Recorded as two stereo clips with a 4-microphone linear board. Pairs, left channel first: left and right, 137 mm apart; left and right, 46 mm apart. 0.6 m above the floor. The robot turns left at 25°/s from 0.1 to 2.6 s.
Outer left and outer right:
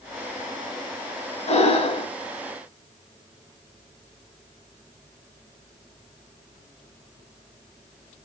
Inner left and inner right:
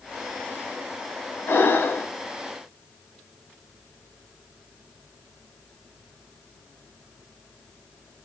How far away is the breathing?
About 0.7 m.